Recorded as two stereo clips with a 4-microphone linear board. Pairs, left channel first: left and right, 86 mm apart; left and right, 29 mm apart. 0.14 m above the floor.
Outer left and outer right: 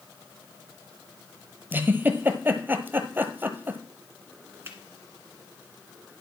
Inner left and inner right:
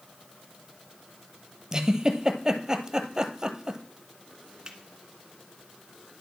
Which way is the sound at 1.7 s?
25° right (ahead or behind).